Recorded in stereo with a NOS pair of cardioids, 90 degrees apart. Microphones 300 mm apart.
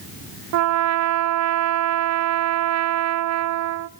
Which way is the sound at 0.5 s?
60° right.